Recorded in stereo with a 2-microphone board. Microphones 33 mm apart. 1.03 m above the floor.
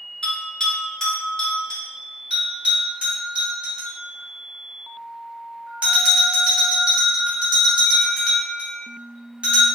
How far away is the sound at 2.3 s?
About 1.6 m.